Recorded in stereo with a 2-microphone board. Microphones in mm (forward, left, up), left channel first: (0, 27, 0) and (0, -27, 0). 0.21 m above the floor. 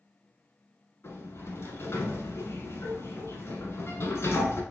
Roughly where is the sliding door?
Left.